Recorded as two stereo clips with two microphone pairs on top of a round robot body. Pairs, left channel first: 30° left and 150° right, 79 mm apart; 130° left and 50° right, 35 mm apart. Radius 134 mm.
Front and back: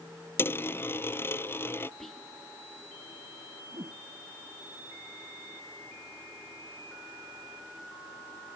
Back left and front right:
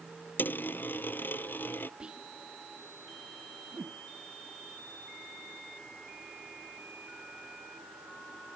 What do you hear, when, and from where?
0.4 s a dropped coin: 95° left
2.0 s whispering: 35° right
3.7 s a whoosh: 95° right